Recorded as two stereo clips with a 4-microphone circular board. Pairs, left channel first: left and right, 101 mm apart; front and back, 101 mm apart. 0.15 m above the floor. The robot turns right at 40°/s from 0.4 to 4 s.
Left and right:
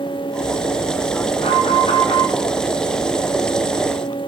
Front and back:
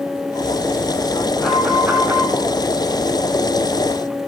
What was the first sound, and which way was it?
An alarm, 80° left.